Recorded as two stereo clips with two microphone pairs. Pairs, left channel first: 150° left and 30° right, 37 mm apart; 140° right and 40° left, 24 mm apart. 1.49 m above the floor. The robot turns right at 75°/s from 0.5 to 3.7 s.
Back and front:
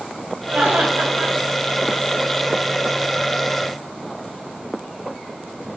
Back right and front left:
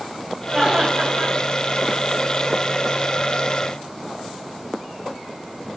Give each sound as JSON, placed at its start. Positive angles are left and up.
{"t": 0.5, "sound": "laughter", "azimuth_deg": -30, "distance_m": 2.5}